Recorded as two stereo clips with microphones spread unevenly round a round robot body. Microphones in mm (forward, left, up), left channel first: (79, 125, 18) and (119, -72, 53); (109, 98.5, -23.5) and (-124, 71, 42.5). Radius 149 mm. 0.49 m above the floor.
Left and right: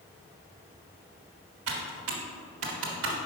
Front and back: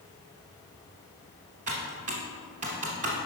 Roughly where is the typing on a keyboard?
Right.